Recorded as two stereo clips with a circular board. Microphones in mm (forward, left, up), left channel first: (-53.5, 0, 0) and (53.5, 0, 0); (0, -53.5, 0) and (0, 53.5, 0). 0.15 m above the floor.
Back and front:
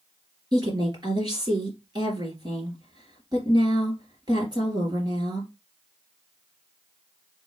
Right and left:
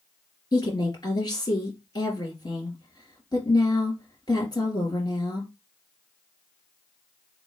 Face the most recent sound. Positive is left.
turn(degrees=-45)